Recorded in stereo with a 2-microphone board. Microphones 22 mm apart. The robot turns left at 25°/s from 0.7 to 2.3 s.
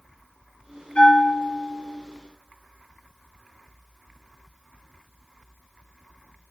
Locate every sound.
0.9 s a bell: 70° left (ahead or behind), 2 m; by 1.8 s 85° left, 2 m